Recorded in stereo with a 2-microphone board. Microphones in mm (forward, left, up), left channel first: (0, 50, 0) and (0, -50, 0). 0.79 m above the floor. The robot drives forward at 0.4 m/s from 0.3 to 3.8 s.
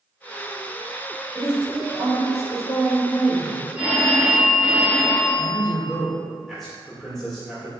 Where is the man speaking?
5° left (ahead or behind), 1.9 m.